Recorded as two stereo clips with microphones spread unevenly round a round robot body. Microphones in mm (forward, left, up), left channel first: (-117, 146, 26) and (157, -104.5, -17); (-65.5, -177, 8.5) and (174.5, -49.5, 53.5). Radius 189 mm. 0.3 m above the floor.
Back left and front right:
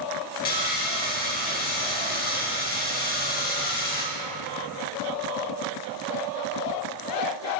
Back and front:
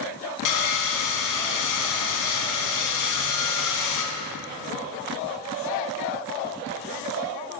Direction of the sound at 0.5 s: 155° right.